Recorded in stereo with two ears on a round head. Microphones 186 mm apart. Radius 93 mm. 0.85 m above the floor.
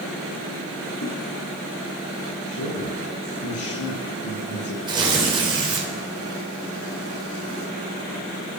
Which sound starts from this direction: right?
Tearing paper, at 4.9 s.